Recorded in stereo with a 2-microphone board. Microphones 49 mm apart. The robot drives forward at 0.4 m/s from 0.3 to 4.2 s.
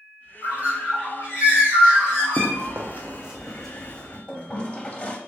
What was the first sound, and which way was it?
A bird, 35° right (ahead or behind).